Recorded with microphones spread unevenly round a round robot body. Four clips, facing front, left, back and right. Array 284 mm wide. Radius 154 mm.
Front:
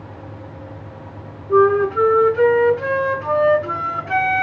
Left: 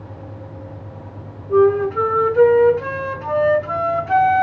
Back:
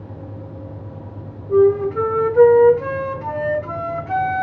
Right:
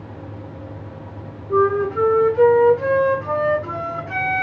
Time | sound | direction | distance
1.5 | a flute | 145° left | 3 m